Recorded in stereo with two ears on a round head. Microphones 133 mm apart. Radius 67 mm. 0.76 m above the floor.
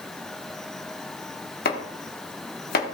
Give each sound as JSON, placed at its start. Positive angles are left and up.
{"t": 1.6, "sound": "chopping", "side_deg": 75, "distance_m": 1.4}